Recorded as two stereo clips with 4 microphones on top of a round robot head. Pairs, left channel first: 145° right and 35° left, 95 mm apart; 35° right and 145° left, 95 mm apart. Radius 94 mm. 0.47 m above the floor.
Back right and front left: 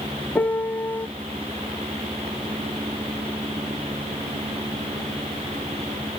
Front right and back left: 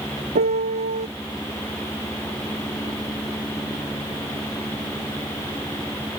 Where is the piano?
140° left.